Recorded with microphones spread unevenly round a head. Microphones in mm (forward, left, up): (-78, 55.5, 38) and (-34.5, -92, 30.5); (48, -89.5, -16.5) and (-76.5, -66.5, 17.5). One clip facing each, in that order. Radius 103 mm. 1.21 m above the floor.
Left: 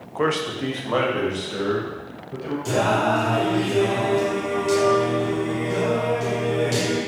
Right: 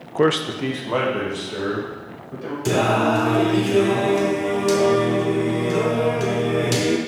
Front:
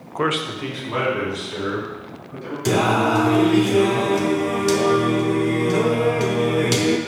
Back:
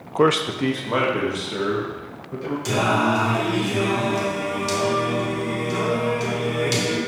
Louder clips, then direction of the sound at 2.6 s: Right 3 dB, front 3 dB; 35° right.